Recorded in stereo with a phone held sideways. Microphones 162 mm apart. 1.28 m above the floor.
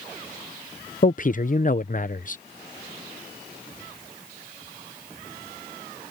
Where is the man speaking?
50° left (ahead or behind).